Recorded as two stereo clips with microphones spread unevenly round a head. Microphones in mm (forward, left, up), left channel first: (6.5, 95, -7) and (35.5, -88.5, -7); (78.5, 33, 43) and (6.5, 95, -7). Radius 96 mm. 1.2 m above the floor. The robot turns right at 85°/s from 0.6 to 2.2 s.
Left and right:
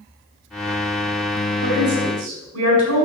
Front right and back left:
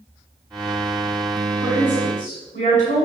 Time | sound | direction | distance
1.6 | a woman speaking | 125° right | 5.5 m